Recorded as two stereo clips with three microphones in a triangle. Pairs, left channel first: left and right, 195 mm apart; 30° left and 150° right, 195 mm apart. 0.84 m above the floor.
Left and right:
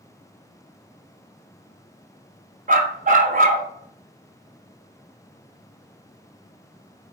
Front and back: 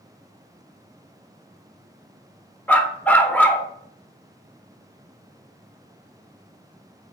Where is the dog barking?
50° right, 0.6 m.